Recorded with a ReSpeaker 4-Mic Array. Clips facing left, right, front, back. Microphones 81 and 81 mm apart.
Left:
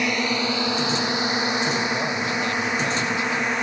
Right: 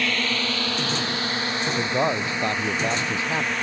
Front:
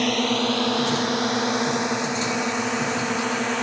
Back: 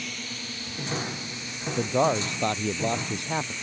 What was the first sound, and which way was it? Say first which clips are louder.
A drone: left 3 dB, front 17 dB; 20° left.